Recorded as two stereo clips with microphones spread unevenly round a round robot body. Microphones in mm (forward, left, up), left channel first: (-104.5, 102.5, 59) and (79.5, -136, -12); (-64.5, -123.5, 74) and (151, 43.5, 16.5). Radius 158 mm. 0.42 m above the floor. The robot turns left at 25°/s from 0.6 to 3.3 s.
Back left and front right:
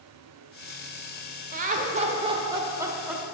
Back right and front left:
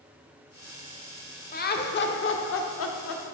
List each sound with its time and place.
1.5 s laughter: 80° right, 0.9 m; by 3.2 s 125° right, 0.9 m